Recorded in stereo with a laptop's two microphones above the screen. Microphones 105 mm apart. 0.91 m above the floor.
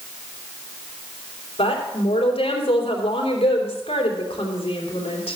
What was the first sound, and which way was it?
A woman speaking, 75° left (ahead or behind).